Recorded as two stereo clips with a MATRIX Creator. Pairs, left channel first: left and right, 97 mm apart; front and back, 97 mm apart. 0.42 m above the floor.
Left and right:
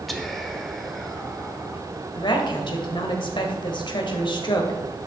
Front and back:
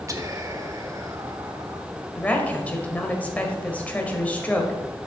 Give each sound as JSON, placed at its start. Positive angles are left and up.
{"t": 0.1, "sound": "whispering", "azimuth_deg": 180, "distance_m": 1.2}
{"t": 2.1, "sound": "a woman speaking", "azimuth_deg": 75, "distance_m": 1.7}